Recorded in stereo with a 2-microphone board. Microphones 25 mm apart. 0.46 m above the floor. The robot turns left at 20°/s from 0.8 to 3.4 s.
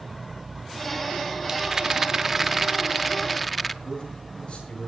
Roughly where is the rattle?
Behind right.